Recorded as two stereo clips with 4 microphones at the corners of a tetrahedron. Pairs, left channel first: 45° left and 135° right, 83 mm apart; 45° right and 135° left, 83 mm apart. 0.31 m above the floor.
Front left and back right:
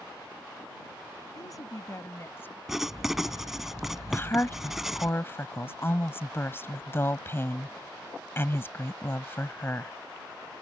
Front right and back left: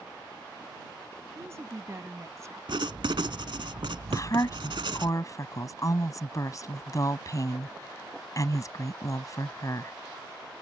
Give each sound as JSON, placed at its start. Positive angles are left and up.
{"t": 1.4, "sound": "a woman speaking", "azimuth_deg": 85}
{"t": 2.7, "sound": "writing", "azimuth_deg": 140}
{"t": 4.1, "sound": "a woman speaking", "azimuth_deg": -10}